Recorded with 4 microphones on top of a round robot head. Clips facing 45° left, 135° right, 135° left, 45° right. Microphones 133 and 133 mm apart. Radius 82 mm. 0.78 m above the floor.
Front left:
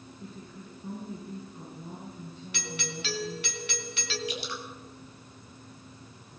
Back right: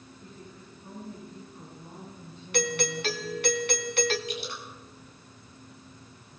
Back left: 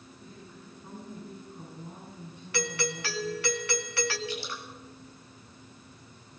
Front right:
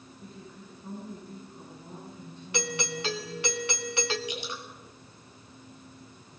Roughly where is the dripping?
Ahead left.